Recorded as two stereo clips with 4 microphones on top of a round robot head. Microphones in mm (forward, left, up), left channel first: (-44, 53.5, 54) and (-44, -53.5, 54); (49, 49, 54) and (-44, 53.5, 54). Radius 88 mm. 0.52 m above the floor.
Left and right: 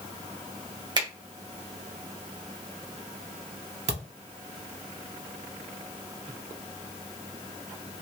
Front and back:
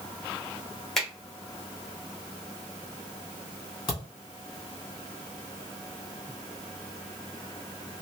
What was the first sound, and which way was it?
A finger snap, 85° right.